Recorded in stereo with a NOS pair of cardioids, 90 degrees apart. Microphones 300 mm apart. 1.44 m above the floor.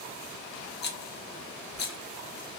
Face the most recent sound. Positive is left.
turn(degrees=35)